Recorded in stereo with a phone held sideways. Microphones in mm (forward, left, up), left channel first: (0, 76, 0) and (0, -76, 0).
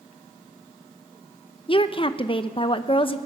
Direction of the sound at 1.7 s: 35° left (ahead or behind).